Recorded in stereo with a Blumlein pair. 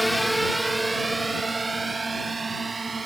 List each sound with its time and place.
0.0 s a drone: straight ahead; by 3.1 s 15° right